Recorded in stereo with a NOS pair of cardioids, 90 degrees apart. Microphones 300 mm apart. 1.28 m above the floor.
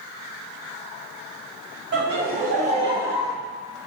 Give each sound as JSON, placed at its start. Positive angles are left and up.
{"t": 1.9, "sound": "laughter", "azimuth_deg": -40, "distance_m": 1.9}